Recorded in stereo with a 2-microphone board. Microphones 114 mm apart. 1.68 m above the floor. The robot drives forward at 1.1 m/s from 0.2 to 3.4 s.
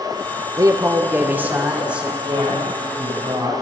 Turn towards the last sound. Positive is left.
turn(degrees=-40)  # may be behind; listen again after turning